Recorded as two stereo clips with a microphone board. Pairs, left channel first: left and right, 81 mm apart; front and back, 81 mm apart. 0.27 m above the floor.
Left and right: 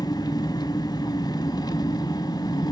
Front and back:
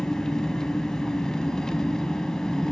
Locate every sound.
0.0 s an engine running: 80° left, 1.0 m